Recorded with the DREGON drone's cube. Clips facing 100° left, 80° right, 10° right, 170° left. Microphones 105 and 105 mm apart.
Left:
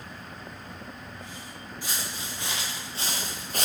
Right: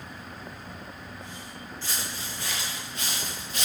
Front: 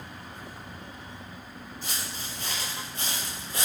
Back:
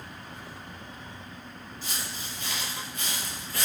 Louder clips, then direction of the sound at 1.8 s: Left 1 dB, even; 25° left.